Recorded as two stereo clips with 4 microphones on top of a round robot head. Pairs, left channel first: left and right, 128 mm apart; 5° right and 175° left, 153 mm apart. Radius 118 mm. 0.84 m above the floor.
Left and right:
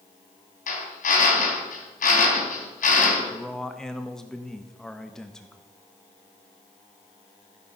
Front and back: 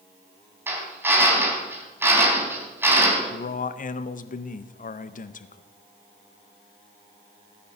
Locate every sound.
0.7 s a drill: 100° left, 3.5 m
3.3 s a man speaking: 5° left, 0.7 m